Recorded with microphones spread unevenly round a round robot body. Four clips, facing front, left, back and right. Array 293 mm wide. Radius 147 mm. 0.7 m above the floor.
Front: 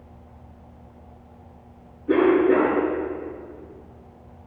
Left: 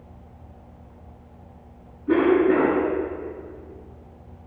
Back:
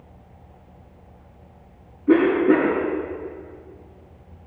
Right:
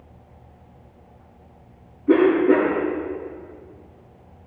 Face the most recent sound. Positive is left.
turn(degrees=180)